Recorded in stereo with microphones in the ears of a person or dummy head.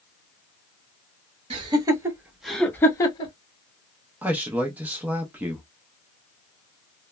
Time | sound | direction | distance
1.5 | laughter | 30° right (ahead or behind) | 1.3 m
4.2 | a man speaking | 10° right (ahead or behind) | 0.5 m